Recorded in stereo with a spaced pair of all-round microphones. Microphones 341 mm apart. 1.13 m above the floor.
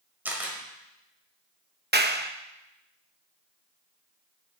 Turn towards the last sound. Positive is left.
turn(degrees=-30)  # may be behind; listen again after turning